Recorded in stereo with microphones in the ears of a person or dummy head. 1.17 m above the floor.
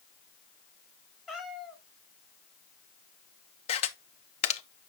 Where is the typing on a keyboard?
No typing on a keyboard in this recording.